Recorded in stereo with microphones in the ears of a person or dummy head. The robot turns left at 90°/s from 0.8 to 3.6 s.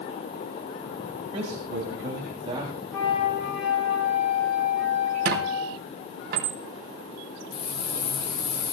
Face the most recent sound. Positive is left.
turn(degrees=30)  # may be behind; listen again after turning